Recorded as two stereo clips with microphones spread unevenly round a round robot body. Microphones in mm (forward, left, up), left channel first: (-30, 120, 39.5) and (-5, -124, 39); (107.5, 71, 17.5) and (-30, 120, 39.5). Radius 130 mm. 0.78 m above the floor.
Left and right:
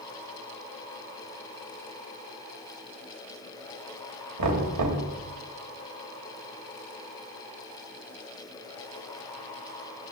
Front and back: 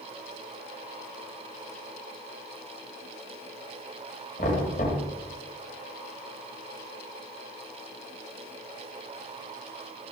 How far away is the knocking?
About 3.5 m.